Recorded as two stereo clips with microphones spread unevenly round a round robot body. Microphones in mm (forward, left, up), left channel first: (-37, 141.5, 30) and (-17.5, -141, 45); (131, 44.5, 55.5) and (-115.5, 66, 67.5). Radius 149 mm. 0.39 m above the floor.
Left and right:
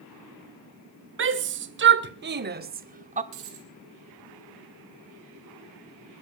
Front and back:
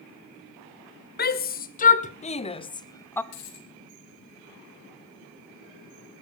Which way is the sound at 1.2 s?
45° right.